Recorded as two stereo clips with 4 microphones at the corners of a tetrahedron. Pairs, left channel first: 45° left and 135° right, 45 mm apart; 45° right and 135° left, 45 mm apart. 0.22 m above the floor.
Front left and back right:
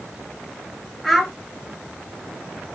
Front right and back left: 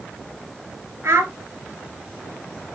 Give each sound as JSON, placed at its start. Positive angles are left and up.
{"t": 1.0, "sound": "a child speaking", "azimuth_deg": 140, "distance_m": 1.8}